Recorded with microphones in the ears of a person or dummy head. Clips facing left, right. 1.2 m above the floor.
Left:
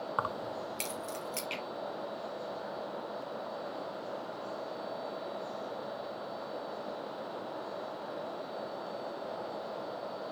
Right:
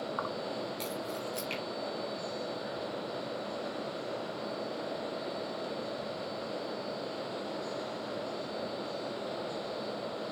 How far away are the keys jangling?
About 0.6 m.